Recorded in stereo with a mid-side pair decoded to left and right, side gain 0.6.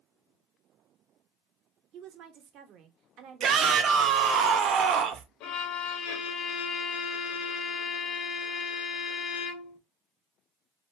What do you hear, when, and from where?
1.9 s a woman speaking: 60° right, 0.9 m
3.4 s a shout: 50° right, 0.9 m
5.4 s a violin: 70° left, 0.7 m